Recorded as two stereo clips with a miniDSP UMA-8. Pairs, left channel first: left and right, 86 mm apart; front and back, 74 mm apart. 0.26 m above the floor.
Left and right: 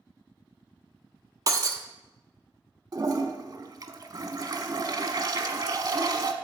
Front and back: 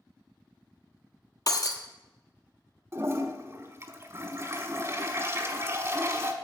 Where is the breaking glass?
40° right, 1.1 m.